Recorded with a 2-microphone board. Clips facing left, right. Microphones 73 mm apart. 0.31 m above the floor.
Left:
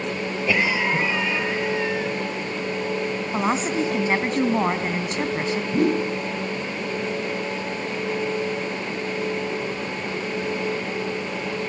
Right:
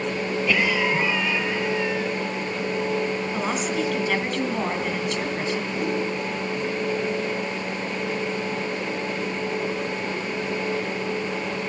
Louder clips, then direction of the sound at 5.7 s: Left 8 dB; 65° left (ahead or behind).